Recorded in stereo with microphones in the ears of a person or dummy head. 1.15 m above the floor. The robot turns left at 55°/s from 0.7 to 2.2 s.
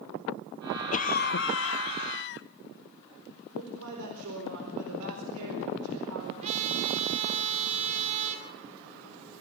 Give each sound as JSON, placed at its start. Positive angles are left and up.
{"t": 0.9, "sound": "a cough", "azimuth_deg": 135, "distance_m": 0.7}
{"t": 3.5, "sound": "a man speaking", "side_deg": -80, "distance_m": 4.0}
{"t": 6.4, "sound": "a trumpet", "side_deg": -35, "distance_m": 3.0}